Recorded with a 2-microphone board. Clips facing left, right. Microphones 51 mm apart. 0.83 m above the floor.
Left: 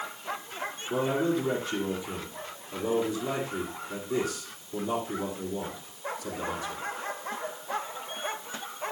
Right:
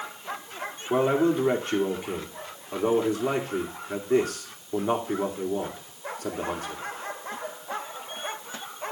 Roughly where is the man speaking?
Right.